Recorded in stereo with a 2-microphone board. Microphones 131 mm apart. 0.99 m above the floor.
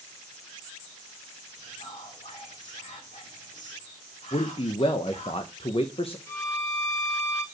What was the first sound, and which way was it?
Whispering, 70° left (ahead or behind).